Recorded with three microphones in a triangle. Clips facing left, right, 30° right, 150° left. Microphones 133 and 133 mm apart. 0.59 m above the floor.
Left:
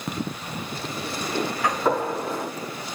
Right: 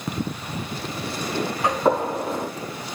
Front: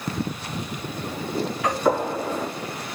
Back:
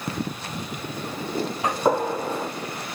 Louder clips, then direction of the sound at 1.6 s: Right 4 dB, even; 155° right.